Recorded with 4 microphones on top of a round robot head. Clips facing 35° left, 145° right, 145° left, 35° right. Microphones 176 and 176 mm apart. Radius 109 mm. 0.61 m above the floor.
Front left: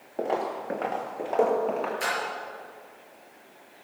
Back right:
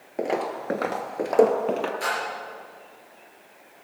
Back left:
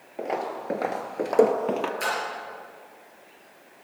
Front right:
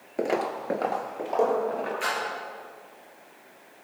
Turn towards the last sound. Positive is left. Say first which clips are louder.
# back right 2 dB, back left 2 dB
turn(degrees=100)